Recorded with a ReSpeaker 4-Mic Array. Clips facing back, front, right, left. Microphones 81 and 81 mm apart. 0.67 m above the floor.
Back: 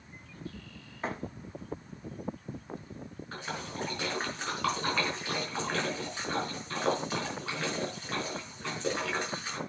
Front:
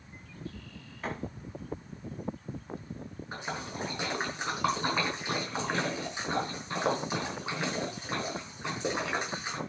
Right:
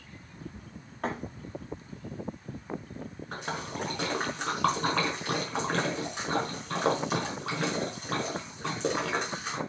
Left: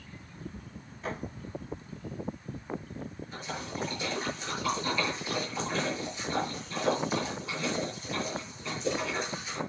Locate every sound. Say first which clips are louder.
1.0 s a thud: back 1 dB, right 4 dB; 110° right, 7 m
3.3 s a splash: front 1 dB, right 4 dB; 75° right, 6 m